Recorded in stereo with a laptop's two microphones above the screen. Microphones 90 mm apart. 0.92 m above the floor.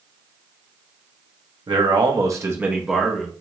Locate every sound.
1.7 s a man speaking: 60° right (ahead or behind), 0.8 m; by 3.3 s 10° left (ahead or behind), 0.8 m